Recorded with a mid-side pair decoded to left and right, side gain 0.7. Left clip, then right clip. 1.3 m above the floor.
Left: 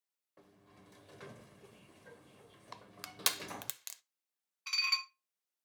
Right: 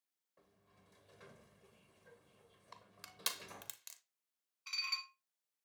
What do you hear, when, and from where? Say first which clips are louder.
0.4 s a sliding door: left 8 dB; 45° left, 0.8 m
2.7 s crushing: left 7 dB; 40° left, 0.8 m
4.7 s dishes clattering: left 7 dB; 40° left, 1.2 m